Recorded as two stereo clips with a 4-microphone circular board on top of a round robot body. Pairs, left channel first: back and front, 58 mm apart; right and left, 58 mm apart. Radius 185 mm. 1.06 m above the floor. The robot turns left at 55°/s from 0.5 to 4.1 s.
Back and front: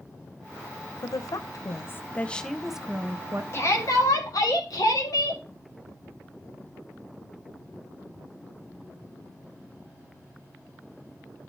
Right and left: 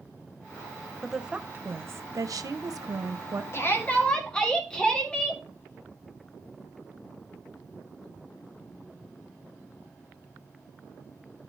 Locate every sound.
1.0 s a woman speaking: 175° left, 0.8 m; by 3.4 s 45° left, 0.8 m
3.5 s a shout: 135° right, 1.9 m; by 5.4 s 165° right, 1.9 m